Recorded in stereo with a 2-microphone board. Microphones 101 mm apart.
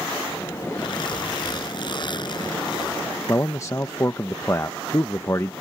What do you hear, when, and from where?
0.8 s a zipper: 50° left (ahead or behind)
3.3 s a man speaking: 30° left (ahead or behind)